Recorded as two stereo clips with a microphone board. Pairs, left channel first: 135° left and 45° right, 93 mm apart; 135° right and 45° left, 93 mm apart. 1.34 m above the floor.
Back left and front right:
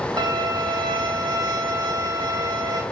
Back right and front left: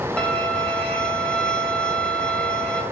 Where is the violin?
60° right, 0.6 m.